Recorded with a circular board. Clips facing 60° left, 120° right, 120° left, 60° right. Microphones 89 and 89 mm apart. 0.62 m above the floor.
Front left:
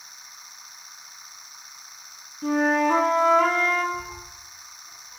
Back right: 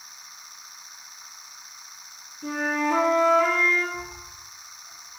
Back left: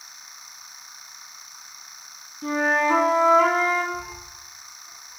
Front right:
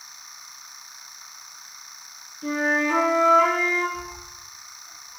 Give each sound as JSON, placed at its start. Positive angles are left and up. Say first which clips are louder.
{"t": 2.4, "sound": "a flute", "louder": "front left 5 dB, back left 2 dB", "azimuth_deg": 70, "distance_m": 1.6}
{"t": 3.9, "sound": "a cat meowing", "louder": "front left 2 dB, back left 1 dB", "azimuth_deg": 80, "distance_m": 3.0}